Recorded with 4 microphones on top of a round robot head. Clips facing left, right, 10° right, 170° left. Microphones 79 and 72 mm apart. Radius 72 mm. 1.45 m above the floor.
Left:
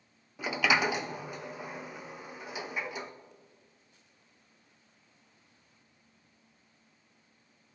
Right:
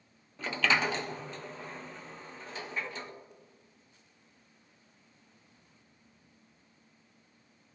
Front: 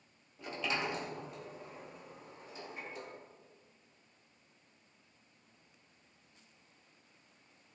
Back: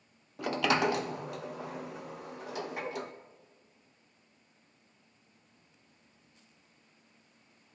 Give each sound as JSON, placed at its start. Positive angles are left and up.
{"t": 0.4, "sound": "a sliding door", "azimuth_deg": 170, "distance_m": 0.6}